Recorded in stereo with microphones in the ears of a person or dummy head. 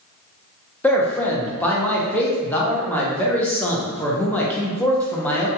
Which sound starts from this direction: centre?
A man speaking, at 0.8 s.